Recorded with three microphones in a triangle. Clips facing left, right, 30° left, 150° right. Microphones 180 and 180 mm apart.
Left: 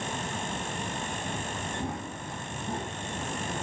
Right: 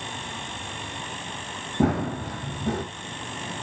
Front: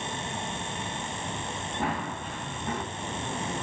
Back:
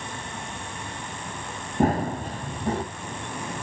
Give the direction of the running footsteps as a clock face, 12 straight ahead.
3 o'clock.